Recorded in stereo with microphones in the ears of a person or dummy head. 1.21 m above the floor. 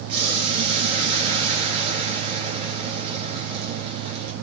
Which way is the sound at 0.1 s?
25° right (ahead or behind).